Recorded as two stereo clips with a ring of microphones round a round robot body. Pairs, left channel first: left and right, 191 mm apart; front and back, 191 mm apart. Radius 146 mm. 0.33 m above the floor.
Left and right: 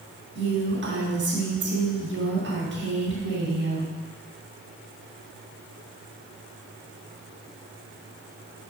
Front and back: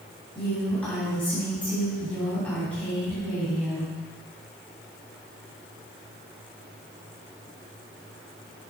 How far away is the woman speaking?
About 3 m.